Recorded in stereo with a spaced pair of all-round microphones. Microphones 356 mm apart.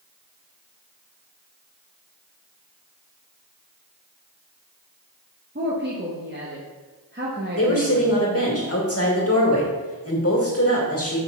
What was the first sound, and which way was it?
A woman speaking, 30° right (ahead or behind).